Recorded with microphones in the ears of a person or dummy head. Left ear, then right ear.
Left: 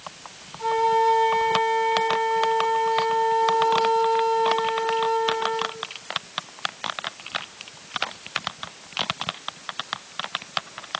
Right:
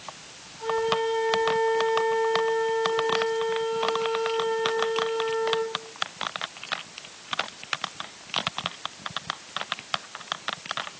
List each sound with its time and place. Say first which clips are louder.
0.6 s a flute: left 5 dB; 15° left (ahead or behind), 3.5 m